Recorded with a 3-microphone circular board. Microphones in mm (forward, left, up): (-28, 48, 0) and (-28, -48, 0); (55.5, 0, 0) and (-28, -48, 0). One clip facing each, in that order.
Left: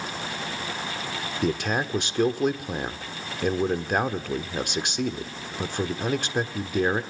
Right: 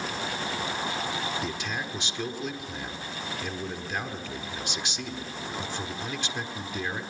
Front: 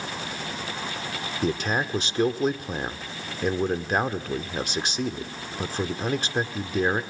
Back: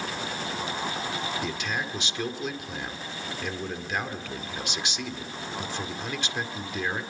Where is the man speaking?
70° left, 1.5 m.